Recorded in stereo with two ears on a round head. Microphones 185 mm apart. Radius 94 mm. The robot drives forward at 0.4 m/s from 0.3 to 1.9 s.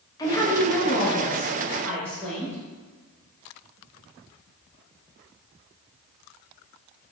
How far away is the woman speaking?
About 0.5 m.